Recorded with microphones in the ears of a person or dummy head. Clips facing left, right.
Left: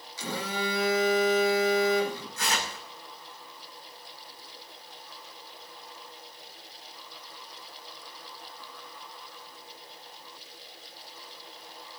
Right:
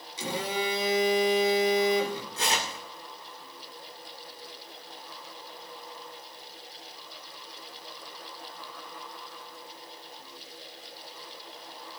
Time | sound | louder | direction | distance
0.2 | a phone buzzing | right 2 dB | 25° right (ahead or behind) | 2.5 m
2.4 | tearing paper | right 2 dB | 20° right (ahead or behind) | 2.5 m